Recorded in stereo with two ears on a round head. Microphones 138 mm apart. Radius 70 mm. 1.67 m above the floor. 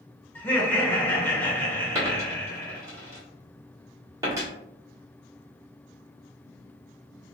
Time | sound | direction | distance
0.3 | laughter | 15° left (ahead or behind) | 1.4 m
1.9 | a dropped coin | 20° right (ahead or behind) | 1.6 m